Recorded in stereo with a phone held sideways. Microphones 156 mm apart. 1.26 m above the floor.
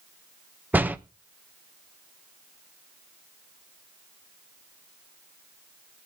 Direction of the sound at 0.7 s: 10° right (ahead or behind).